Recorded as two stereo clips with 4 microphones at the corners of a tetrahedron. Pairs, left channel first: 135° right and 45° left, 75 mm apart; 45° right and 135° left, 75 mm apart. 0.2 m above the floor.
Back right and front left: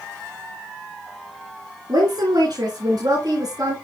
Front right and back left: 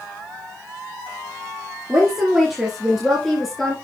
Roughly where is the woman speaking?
Ahead left.